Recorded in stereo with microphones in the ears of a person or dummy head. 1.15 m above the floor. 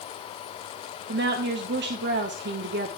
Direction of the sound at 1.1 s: 50° right (ahead or behind).